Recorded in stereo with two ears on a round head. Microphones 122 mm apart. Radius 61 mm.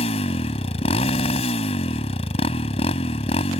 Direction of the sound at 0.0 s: 45° left (ahead or behind).